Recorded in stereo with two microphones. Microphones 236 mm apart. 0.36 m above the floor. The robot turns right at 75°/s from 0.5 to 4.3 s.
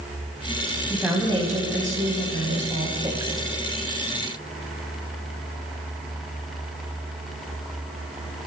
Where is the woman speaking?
170° left, 2 m; by 3.5 s 5° left, 2 m.